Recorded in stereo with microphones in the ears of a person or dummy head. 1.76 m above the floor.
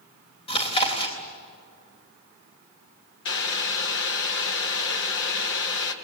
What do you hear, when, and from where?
0.5 s chewing: 20° left (ahead or behind), 3.5 m
3.2 s boiling: 65° left (ahead or behind), 2.5 m